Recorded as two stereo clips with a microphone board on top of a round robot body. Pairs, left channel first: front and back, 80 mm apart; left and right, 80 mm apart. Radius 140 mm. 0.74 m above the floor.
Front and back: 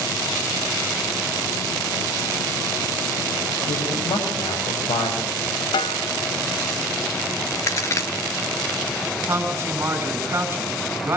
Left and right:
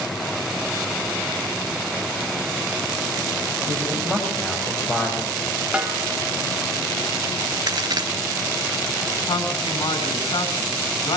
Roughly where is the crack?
Ahead right.